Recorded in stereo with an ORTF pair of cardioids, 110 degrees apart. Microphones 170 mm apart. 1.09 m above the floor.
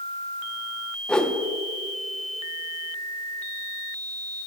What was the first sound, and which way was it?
A whoosh, 5° left.